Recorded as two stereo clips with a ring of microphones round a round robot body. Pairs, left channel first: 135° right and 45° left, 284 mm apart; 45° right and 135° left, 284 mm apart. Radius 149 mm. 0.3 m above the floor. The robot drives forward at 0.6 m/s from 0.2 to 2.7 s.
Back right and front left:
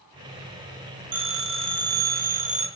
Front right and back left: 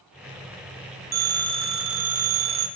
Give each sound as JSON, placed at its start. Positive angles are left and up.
{"t": 1.1, "sound": "a phone ringing", "azimuth_deg": 80, "distance_m": 1.7}